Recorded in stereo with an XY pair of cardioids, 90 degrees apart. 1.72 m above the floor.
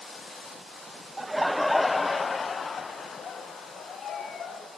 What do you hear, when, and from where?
1.2 s laughter: 20° right, 0.9 m; by 4.7 s 60° left, 3 m